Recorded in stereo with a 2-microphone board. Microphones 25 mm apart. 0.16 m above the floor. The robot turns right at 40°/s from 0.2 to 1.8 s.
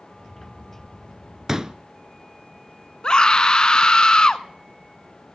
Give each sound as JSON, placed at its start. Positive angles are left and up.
{"t": 1.5, "sound": "a pop", "side_deg": -20, "distance_m": 0.8}
{"t": 3.0, "sound": "a scream", "side_deg": 35, "distance_m": 1.2}